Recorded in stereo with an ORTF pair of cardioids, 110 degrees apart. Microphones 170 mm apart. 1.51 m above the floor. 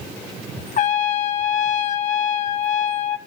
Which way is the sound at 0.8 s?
50° left.